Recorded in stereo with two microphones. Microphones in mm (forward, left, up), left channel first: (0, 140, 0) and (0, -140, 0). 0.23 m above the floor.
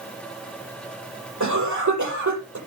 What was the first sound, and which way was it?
A cough, 80° right.